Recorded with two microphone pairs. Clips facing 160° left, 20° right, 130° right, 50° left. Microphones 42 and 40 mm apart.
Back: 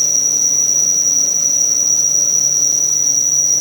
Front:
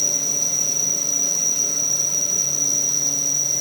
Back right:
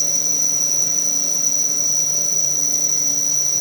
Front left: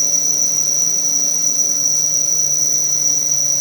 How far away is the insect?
About 0.9 m.